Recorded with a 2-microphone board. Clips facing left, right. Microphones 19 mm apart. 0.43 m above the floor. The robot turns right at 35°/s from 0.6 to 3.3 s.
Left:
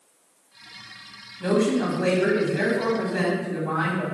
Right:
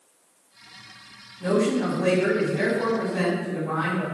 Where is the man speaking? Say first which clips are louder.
Left 1 dB; 70° left, 2.5 m; by 4.0 s 135° left, 2.5 m.